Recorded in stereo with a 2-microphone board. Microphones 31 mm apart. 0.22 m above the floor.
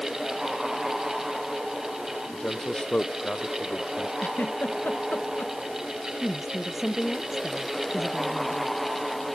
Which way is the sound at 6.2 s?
10° right (ahead or behind).